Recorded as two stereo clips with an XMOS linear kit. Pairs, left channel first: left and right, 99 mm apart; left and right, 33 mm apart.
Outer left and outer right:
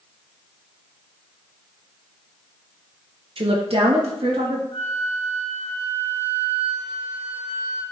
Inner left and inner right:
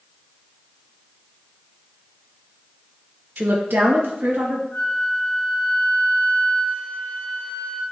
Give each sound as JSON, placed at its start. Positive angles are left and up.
{"t": 3.4, "sound": "a woman speaking", "side_deg": -65, "distance_m": 1.2}
{"t": 4.7, "sound": "a flute", "side_deg": 80, "distance_m": 2.5}